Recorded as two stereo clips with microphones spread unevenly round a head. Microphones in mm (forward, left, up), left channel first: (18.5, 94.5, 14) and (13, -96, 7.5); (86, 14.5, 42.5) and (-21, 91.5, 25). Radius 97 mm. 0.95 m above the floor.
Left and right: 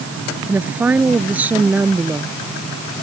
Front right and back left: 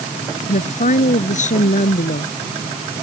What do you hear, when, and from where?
0.5 s a woman speaking: 10° right